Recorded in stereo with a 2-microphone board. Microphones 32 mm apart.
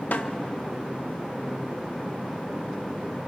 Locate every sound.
0.1 s a snare drum: 60° left (ahead or behind), 1.0 m